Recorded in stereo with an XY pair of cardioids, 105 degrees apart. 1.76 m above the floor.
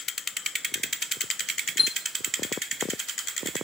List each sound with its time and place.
1.8 s a chime: 25° left, 0.6 m